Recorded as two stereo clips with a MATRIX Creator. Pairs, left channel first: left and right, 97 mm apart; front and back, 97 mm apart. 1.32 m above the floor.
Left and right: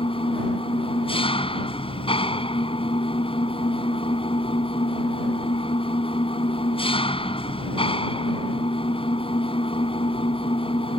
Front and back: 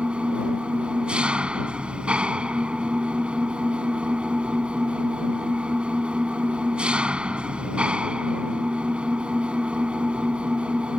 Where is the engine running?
100° left.